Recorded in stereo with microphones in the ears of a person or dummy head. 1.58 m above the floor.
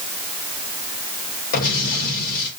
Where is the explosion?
50° left (ahead or behind), 4.5 m.